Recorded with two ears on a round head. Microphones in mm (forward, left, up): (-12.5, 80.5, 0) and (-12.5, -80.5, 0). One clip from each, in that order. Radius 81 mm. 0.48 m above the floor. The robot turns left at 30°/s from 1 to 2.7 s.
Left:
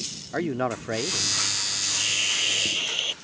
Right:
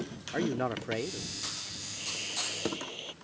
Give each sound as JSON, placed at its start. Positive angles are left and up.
{"t": 0.3, "sound": "a man speaking", "side_deg": 15}
{"t": 1.8, "sound": "a hiss", "side_deg": 80}